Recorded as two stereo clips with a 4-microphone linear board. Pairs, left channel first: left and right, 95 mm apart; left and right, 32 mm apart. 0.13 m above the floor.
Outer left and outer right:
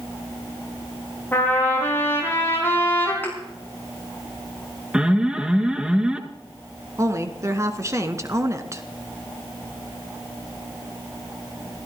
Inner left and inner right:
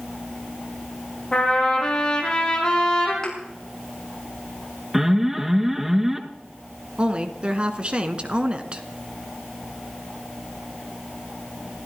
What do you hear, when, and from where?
1.3 s a trumpet: 25° left (ahead or behind), 6 m
3.2 s a thud: 20° left (ahead or behind), 8 m
4.9 s an alarm: 10° right (ahead or behind), 1.5 m
7.0 s a woman speaking: 35° right (ahead or behind), 1.5 m